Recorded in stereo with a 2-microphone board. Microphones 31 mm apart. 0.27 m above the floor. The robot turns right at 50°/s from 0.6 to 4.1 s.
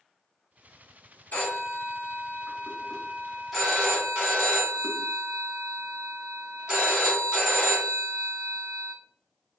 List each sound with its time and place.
1.3 s a phone ringing: 75° left, 1.5 m; by 8.9 s 145° right, 1.5 m